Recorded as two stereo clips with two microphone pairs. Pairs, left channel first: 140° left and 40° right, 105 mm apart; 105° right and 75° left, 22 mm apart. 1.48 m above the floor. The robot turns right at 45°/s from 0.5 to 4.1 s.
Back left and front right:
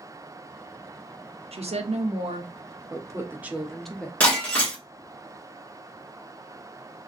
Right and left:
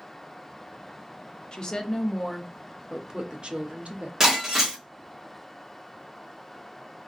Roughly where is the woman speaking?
Ahead right.